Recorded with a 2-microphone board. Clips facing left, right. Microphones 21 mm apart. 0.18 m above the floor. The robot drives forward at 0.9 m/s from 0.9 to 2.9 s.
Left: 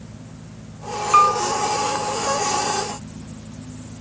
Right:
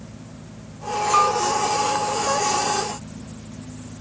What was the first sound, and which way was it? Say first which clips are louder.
A piano: left 4 dB; 30° left (ahead or behind).